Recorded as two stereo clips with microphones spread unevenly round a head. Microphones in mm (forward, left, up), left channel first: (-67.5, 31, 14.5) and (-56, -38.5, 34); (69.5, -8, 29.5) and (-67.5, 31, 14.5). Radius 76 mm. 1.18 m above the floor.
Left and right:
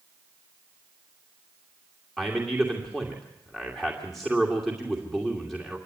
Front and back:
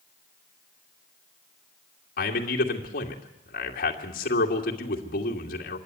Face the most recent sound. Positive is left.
turn(degrees=15)